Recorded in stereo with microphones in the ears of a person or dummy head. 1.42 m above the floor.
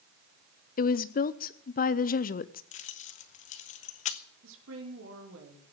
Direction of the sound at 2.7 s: 40° left (ahead or behind).